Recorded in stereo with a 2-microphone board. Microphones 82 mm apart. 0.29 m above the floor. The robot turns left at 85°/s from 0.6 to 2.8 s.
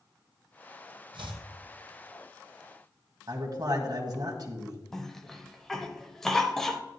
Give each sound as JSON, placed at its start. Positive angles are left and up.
{"t": 1.1, "sound": "chopping", "side_deg": -85, "distance_m": 1.6}
{"t": 3.3, "sound": "a man speaking", "side_deg": -50, "distance_m": 1.6}
{"t": 4.9, "sound": "a cough", "side_deg": 5, "distance_m": 0.9}